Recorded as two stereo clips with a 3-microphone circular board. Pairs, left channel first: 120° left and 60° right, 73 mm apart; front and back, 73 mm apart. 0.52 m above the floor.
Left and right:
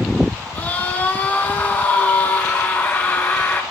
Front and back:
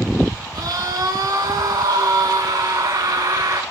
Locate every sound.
0.6 s a scream: 175° right, 5.5 m